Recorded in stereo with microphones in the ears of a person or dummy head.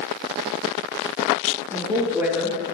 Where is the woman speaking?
10° right (ahead or behind), 1.3 m.